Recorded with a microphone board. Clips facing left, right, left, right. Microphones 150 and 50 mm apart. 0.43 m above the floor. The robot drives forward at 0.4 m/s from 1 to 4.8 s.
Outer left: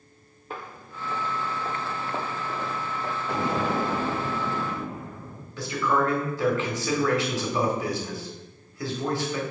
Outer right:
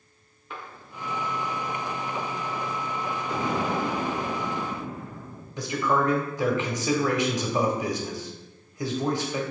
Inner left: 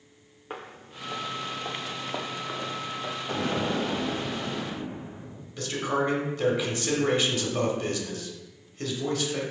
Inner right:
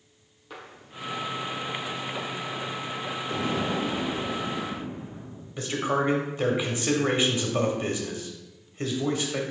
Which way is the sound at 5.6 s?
20° right (ahead or behind).